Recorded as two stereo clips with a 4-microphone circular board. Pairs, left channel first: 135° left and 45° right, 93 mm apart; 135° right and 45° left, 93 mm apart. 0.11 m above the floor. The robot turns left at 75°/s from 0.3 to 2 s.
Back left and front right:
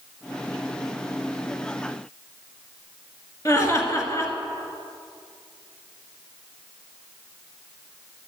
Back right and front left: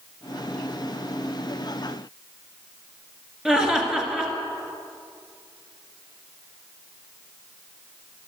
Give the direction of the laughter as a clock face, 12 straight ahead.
8 o'clock.